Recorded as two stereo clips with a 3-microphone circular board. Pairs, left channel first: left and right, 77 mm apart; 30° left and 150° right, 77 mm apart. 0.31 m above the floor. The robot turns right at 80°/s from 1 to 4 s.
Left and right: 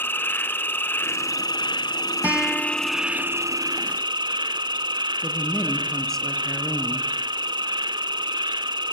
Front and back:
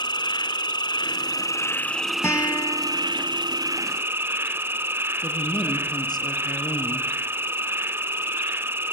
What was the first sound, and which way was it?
An insect, 30° left.